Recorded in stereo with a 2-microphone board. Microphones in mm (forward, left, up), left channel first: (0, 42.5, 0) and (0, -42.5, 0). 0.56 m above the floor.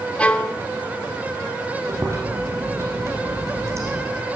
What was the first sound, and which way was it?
A violin, 15° left (ahead or behind).